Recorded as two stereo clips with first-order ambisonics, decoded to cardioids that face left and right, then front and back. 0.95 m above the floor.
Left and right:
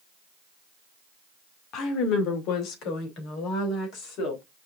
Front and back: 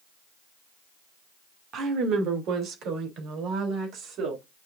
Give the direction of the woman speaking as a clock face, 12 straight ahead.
8 o'clock.